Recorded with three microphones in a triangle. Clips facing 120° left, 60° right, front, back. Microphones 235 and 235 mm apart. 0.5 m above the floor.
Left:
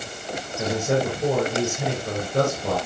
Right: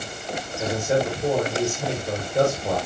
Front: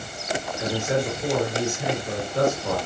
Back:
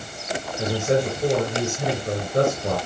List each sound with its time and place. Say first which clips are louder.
0.6 s a man speaking: even, back 4 dB; 145° left, 7.5 m